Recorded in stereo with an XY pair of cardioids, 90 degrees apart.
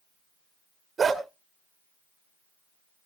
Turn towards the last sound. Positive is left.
turn(degrees=-45)